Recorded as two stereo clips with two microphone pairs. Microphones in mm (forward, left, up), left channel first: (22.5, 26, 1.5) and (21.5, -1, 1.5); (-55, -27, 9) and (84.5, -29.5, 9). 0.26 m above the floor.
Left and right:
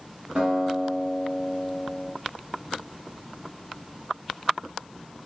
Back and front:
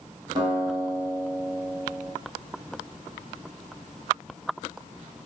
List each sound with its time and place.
0.3 s a guitar: 60° right, 2.5 m